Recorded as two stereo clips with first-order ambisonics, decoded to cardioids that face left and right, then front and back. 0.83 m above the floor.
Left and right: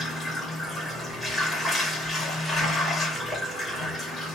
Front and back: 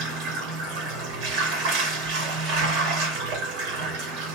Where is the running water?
Straight behind, 2.5 m.